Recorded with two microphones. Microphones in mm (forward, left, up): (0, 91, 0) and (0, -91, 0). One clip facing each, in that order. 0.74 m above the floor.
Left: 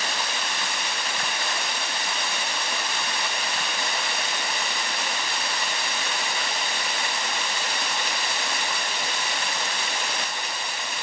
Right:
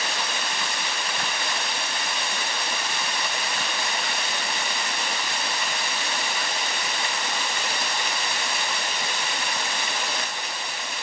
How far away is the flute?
No flute in this recording.